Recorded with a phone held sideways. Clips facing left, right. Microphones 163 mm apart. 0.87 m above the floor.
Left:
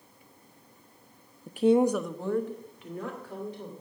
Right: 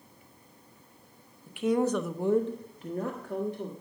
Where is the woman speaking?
45° left (ahead or behind), 0.6 m; by 3.7 s 50° right (ahead or behind), 1.8 m.